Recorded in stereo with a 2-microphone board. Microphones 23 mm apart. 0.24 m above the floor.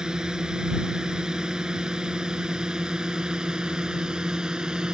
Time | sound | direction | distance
0.0 | a drone | 35° right (ahead or behind) | ?